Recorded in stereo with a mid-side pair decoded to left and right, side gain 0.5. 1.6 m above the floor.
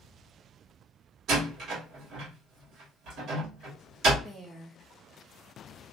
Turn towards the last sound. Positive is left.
turn(degrees=-10)